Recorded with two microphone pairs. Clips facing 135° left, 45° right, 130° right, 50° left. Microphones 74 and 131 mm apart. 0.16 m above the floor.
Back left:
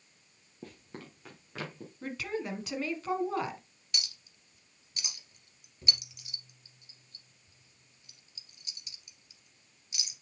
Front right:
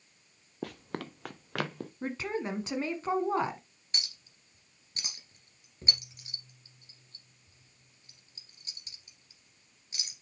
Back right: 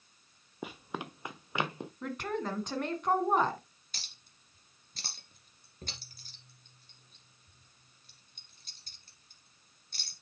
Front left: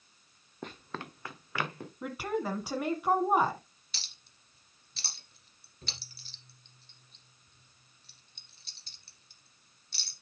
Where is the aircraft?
I don't hear an aircraft.